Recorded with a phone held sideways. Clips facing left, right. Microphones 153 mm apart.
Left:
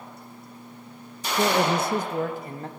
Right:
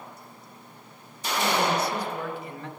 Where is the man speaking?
60° left (ahead or behind), 0.6 m; by 2.7 s 40° left (ahead or behind), 1.3 m.